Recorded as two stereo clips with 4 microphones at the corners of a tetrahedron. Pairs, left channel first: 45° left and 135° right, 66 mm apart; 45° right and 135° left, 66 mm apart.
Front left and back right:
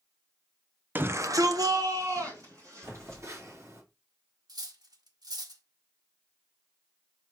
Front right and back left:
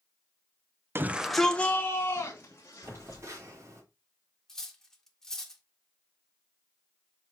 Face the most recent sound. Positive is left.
turn(degrees=-130)